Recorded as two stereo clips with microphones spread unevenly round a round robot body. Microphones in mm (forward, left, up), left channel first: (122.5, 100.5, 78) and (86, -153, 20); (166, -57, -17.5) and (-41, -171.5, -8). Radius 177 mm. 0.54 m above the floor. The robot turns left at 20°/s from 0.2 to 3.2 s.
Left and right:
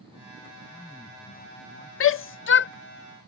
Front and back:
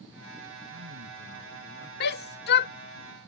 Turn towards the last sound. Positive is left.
turn(degrees=30)